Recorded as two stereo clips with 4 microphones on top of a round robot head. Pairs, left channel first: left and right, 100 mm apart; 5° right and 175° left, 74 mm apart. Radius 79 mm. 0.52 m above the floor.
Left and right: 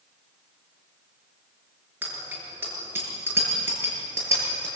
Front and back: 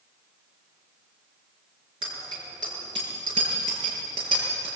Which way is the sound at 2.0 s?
160° right.